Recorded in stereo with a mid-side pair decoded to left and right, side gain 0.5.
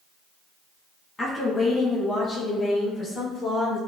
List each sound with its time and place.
1.2 s a woman speaking: 35° left, 1.4 m; by 3.8 s 70° left, 2.5 m